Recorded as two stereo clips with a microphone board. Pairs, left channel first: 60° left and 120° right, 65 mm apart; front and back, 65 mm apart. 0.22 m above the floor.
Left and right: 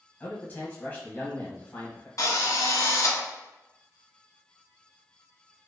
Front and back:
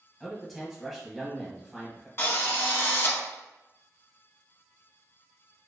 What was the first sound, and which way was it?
A man speaking, 95° left.